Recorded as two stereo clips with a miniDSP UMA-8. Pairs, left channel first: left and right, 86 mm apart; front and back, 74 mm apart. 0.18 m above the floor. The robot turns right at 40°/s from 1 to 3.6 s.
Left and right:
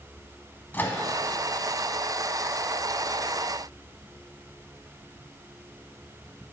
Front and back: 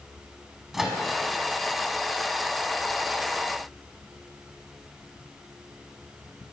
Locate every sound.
0.7 s a microwave: 100° left, 0.8 m